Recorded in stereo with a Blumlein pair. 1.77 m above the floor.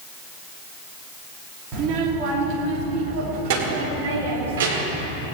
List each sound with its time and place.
1.7 s a child speaking: 30° right, 3 m; by 5.1 s 55° right, 4 m